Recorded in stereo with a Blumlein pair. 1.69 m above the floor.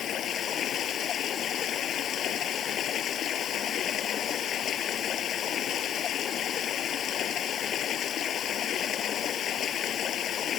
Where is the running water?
30° left.